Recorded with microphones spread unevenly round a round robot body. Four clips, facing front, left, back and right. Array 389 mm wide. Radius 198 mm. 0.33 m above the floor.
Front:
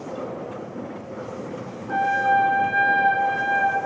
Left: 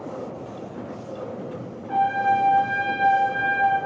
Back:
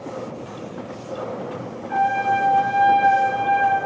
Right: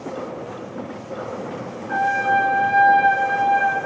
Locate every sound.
1.9 s a trumpet: 30° right, 1.6 m